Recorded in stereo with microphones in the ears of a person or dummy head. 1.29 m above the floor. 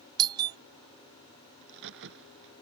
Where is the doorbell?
25° right (ahead or behind).